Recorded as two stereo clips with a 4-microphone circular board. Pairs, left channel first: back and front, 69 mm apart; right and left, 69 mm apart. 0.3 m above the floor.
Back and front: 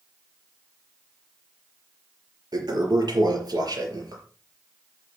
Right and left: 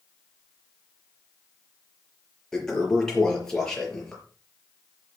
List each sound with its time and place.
2.5 s a toilet flushing: 10° right, 5 m